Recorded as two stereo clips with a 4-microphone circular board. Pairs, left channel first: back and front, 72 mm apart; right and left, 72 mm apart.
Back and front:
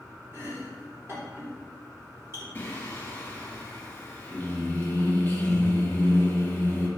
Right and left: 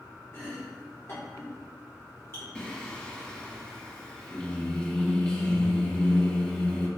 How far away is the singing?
About 0.9 m.